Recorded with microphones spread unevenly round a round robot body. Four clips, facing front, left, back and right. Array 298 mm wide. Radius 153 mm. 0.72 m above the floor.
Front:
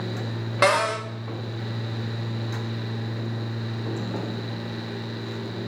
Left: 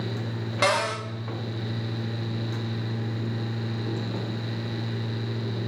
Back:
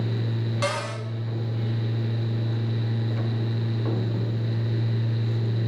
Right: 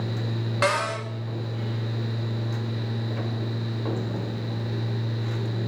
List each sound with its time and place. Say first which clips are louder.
0.6 s a cupboard door: even, front 10 dB; 5° left, 2 m